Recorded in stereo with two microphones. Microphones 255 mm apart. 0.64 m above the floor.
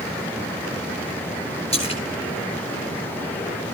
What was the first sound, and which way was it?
A splash, 25° left (ahead or behind).